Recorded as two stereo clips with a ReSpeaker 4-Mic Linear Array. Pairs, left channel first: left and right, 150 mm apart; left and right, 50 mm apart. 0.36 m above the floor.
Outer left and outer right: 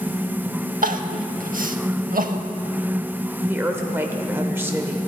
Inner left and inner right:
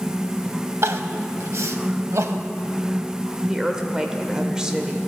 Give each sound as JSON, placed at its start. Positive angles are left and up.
{"t": 0.8, "sound": "crying", "side_deg": -80, "distance_m": 0.5}
{"t": 3.5, "sound": "a woman speaking", "side_deg": -15, "distance_m": 0.9}